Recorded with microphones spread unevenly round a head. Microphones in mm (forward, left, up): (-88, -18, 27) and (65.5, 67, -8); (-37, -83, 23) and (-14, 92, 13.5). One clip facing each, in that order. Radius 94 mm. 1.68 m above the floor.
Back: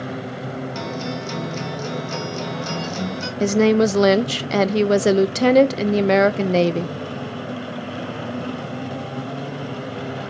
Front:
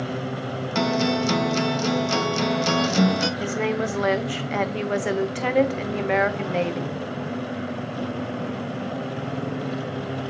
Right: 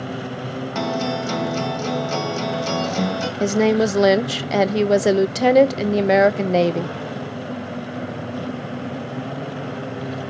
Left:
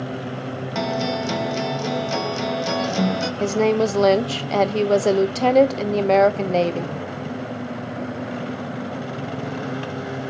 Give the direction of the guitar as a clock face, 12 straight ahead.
12 o'clock.